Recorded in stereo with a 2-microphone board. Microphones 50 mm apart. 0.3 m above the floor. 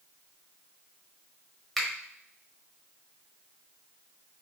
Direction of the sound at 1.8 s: 5° left (ahead or behind).